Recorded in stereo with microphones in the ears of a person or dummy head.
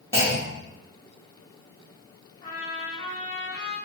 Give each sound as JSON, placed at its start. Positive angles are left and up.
{"t": 0.1, "sound": "a clunk", "side_deg": 10, "distance_m": 0.8}
{"t": 2.4, "sound": "a trumpet", "side_deg": 30, "distance_m": 1.7}